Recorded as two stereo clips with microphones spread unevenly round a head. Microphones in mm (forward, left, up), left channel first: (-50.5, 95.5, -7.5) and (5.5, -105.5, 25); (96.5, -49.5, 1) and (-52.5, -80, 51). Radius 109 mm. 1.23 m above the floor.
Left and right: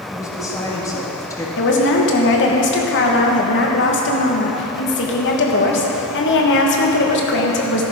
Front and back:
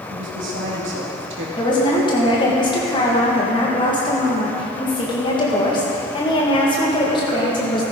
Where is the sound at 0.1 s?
Straight behind, 2 m.